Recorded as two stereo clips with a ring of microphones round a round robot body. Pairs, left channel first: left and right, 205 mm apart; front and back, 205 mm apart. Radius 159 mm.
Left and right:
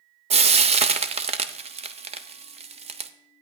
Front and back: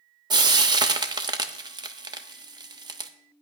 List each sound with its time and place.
0.3 s frying: 125° right, 0.6 m